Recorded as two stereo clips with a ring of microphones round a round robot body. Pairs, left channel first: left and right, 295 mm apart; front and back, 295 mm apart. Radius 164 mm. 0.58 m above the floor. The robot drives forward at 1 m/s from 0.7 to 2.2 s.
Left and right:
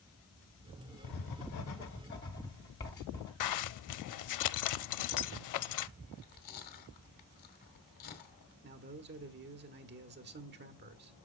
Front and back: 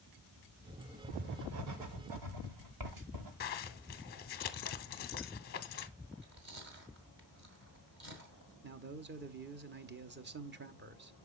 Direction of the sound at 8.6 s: 135° right.